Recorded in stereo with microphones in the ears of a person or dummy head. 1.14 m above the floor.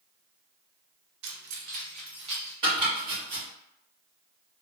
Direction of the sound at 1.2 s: 65° right (ahead or behind).